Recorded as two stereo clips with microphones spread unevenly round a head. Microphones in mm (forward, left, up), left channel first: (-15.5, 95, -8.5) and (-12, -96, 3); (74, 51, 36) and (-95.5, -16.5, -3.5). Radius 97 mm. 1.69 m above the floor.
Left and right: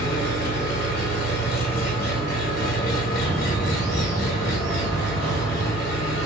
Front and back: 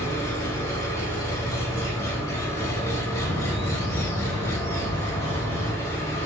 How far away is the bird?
About 1.0 m.